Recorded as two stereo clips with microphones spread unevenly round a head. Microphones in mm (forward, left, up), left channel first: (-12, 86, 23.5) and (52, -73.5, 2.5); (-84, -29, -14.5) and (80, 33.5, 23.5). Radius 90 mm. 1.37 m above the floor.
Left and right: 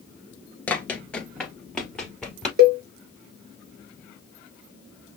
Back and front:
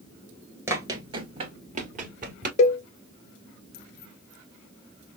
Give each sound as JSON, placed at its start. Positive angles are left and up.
{"t": 0.7, "sound": "running footsteps", "azimuth_deg": 55, "distance_m": 1.5}
{"t": 2.6, "sound": "a cowbell", "azimuth_deg": -105, "distance_m": 1.3}